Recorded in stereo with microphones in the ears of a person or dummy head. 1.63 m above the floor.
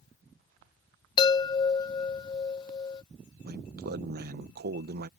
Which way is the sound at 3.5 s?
55° right (ahead or behind).